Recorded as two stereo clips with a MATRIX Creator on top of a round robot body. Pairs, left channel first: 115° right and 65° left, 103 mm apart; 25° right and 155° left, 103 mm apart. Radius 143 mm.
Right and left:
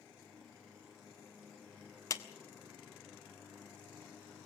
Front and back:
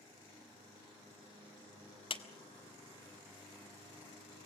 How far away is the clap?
About 1.9 m.